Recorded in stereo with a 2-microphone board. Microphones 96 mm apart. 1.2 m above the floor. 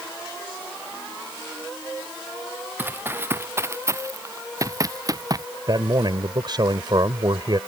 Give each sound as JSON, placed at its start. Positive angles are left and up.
{"t": 2.8, "sound": "running footsteps", "side_deg": -20}
{"t": 5.7, "sound": "a man speaking", "side_deg": -50}